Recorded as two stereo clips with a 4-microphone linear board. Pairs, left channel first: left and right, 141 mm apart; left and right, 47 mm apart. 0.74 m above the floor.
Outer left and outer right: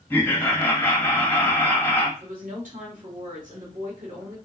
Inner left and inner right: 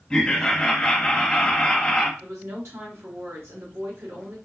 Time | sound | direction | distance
0.1 | laughter | 15° left (ahead or behind) | 1.1 m
2.2 | a woman speaking | 70° right (ahead or behind) | 2.5 m